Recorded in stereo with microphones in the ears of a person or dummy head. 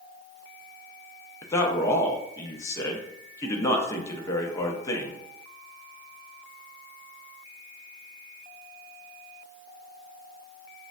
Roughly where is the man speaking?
Centre.